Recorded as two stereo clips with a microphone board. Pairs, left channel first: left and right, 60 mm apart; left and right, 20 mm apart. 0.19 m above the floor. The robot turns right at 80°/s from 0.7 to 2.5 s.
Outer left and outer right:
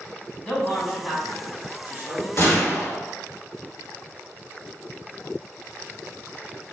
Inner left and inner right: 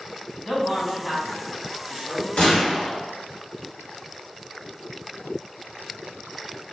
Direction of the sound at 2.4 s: 55° left (ahead or behind).